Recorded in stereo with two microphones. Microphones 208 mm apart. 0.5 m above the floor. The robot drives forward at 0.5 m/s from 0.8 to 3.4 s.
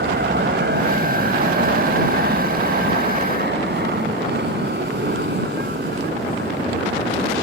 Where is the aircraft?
55° right (ahead or behind); by 7.4 s 50° right (ahead or behind).